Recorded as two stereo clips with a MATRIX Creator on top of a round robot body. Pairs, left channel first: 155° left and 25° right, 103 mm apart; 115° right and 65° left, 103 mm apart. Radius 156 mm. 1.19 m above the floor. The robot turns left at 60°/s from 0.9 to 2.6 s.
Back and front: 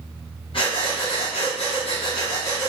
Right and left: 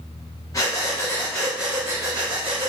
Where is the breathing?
170° right, 0.7 m; by 2.7 s 90° left, 0.7 m.